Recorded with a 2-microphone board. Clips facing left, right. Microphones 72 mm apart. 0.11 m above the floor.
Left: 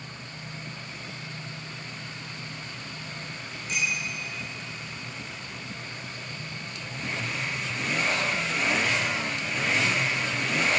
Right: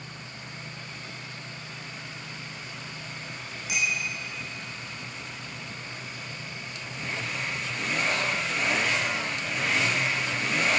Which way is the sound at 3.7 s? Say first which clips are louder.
Right 1 dB; 10° right (ahead or behind).